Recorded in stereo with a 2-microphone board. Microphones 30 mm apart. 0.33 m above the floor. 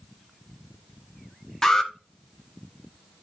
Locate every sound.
1.6 s an alarm: 20° left (ahead or behind), 1.1 m